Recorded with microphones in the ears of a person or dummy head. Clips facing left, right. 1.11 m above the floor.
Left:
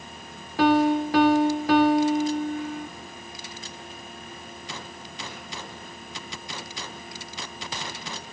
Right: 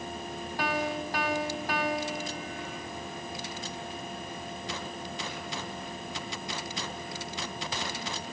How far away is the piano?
About 1.9 m.